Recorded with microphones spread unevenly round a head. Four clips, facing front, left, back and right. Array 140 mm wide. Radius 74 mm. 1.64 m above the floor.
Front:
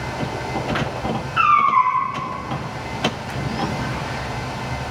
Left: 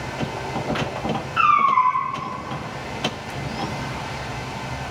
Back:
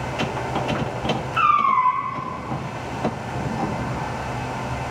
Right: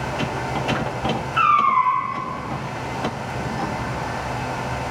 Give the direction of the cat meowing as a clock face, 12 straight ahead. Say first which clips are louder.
Even, front 3 dB; 7 o'clock.